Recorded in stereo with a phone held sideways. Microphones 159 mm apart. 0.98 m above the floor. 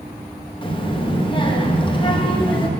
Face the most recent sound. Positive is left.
turn(degrees=30)  # may be behind; listen again after turning